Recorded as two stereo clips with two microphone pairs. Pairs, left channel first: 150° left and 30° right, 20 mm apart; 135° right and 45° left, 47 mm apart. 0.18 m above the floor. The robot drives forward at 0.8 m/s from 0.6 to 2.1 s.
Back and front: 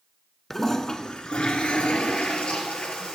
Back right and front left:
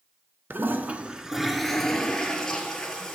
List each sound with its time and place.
0.5 s a toilet flushing: 75° left, 0.6 m; by 3.1 s 155° left, 1.2 m